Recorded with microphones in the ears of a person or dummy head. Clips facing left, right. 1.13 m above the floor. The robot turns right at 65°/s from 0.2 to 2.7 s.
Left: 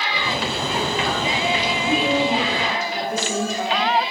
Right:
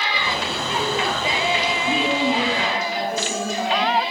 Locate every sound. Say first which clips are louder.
1.8 s a woman speaking: left 2 dB; 40° left, 1.4 m; by 3.9 s 100° left, 1.4 m